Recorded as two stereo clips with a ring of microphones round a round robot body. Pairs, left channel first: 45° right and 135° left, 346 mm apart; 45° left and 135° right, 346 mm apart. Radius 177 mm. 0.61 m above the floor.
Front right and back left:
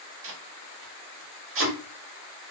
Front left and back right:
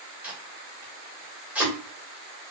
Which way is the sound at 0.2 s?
140° left.